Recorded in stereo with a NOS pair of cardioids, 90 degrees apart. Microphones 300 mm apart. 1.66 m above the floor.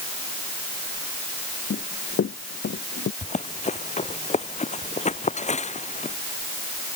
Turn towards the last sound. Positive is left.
turn(degrees=25)